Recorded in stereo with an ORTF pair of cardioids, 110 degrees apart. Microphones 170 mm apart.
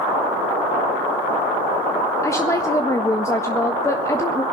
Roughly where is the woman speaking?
Ahead.